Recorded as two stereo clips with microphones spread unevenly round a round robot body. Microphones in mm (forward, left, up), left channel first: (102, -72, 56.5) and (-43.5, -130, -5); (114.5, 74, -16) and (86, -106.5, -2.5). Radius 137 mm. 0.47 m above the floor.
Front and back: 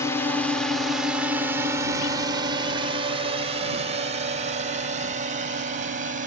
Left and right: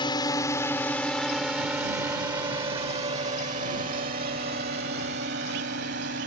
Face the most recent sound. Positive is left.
turn(degrees=-145)